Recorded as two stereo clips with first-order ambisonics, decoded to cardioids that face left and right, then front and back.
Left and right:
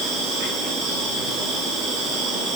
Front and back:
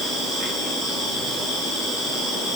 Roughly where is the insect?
Right.